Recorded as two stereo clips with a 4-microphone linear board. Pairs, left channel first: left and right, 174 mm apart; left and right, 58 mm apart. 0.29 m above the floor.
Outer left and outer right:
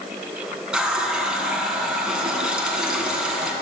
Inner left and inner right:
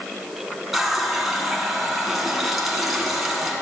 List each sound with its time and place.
0.7 s a running tap: 5° right (ahead or behind), 2 m